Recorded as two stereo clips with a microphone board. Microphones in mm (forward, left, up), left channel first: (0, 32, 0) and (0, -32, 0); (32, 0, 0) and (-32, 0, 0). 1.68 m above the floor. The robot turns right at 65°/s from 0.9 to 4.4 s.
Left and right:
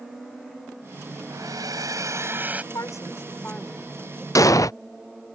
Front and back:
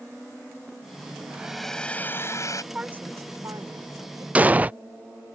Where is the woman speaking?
105° left; by 4.2 s 155° right.